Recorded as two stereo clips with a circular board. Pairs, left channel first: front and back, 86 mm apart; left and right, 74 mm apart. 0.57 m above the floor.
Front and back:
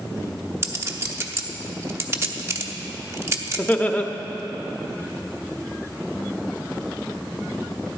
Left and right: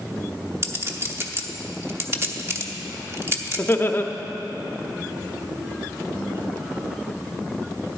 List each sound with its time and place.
0.6 s a clink: 130° right, 0.8 m
3.6 s laughter: 55° left, 0.7 m